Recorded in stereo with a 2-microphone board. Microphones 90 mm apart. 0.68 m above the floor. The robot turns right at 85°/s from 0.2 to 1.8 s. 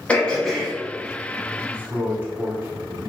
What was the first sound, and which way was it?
Throat clearing, 15° left (ahead or behind).